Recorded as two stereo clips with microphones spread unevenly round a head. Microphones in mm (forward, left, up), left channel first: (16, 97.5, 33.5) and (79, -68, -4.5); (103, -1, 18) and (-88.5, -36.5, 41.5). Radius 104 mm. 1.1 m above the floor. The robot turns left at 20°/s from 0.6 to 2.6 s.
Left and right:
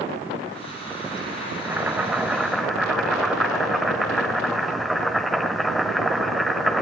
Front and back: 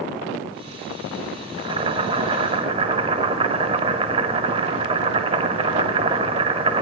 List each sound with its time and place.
1.6 s boiling: 160° right, 0.9 m; by 6.8 s straight behind, 0.9 m